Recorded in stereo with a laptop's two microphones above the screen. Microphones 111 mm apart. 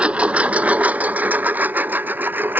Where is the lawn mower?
10° right (ahead or behind); by 2.6 s 20° right (ahead or behind).